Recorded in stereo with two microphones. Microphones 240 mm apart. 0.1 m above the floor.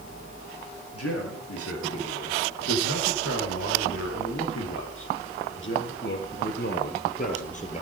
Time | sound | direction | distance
0.9 | a man speaking | 75° left (ahead or behind) | 7 m